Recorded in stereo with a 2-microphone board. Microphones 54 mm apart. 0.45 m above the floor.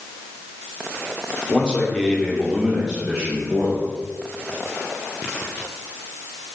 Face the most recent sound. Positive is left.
turn(degrees=-30)  # may be behind; listen again after turning